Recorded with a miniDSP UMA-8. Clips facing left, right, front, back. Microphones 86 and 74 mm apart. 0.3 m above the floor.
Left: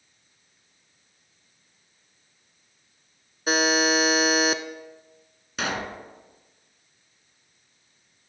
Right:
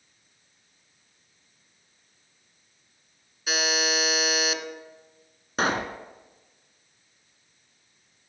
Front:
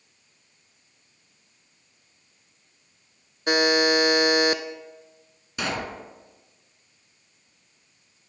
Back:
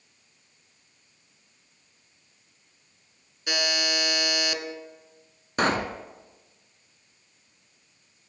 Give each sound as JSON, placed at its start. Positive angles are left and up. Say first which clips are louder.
{"t": 3.5, "sound": "a buzzer", "louder": "left 6 dB, front 9 dB", "azimuth_deg": 40, "distance_m": 0.6}
{"t": 5.6, "sound": "a pop", "louder": "right 4 dB, back 5 dB", "azimuth_deg": -140, "distance_m": 0.9}